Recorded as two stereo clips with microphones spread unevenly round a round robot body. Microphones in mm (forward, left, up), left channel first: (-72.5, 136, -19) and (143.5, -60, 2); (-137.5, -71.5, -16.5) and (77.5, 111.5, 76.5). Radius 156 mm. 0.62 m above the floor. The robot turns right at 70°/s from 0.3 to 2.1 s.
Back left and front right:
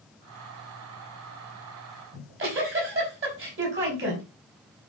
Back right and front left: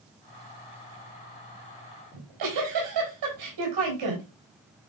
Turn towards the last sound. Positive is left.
turn(degrees=10)